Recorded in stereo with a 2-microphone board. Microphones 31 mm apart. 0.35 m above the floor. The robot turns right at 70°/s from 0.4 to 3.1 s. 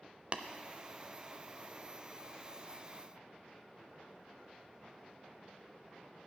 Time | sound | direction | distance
0.3 | tapping | 40° right (ahead or behind) | 0.5 m